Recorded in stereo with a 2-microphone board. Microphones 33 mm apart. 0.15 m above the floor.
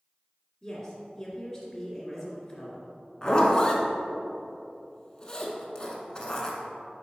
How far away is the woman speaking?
About 1.7 m.